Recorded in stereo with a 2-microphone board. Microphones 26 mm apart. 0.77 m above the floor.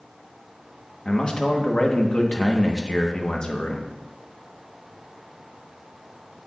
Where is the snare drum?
I don't hear a snare drum.